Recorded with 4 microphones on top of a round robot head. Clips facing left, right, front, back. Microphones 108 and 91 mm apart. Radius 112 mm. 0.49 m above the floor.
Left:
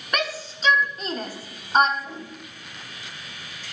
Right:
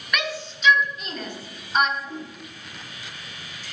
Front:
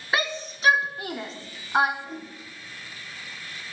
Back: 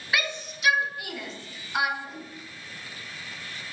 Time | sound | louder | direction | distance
0.1 | a shout | left 1 dB, front 3 dB | 50° left | 1.3 m
2.0 | a whoosh | right 2 dB, front 2 dB | 100° left | 3.5 m